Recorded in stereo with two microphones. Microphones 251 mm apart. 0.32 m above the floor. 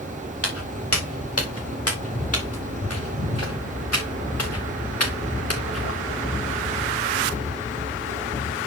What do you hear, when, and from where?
0.4 s footsteps: 65° left (ahead or behind), 4 m; by 5.9 s 70° left (ahead or behind), 2 m